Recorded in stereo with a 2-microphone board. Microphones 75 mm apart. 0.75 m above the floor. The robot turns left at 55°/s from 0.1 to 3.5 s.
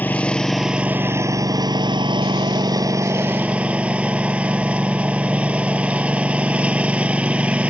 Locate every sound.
0.0 s a lawn mower: 25° left; by 7.7 s 160° right